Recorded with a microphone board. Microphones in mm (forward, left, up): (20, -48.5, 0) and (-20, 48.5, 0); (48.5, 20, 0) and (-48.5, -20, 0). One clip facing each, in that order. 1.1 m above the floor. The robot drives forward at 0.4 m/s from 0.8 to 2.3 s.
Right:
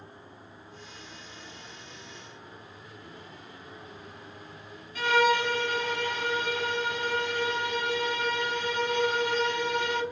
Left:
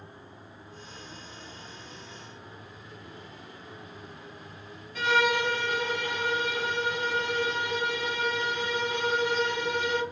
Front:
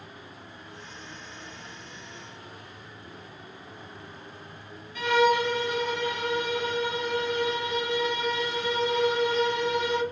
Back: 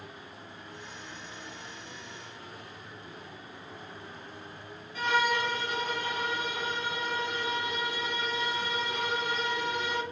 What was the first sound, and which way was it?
A violin, 150° left.